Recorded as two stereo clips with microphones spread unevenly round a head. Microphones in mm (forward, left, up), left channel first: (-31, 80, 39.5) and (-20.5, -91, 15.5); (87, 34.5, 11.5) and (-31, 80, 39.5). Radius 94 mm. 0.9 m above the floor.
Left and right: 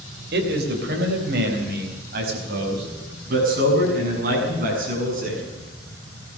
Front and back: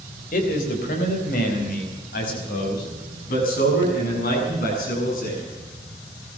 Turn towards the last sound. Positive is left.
turn(degrees=-40)